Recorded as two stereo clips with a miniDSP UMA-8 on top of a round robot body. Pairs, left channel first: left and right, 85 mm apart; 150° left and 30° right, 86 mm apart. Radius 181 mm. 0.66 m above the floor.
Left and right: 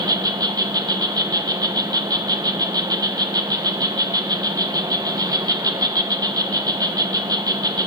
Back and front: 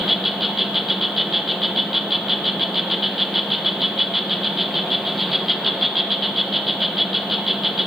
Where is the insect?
115° right, 0.9 m.